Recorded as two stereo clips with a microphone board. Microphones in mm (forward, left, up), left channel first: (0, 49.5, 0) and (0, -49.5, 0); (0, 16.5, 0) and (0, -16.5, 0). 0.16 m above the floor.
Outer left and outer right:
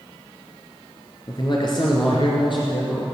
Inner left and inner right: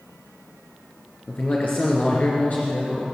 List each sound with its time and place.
1.3 s a man speaking: 45° left (ahead or behind), 2.5 m; by 3.0 s 60° left (ahead or behind), 3 m